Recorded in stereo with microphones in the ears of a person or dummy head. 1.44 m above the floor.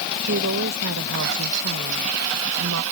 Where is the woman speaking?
70° right (ahead or behind); by 2.8 s 85° right.